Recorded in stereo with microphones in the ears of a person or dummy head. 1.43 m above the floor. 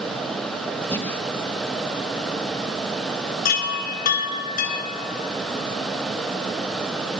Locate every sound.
0.9 s breathing: 15° left (ahead or behind), 3.5 m
3.5 s a chime: 60° left (ahead or behind), 3 m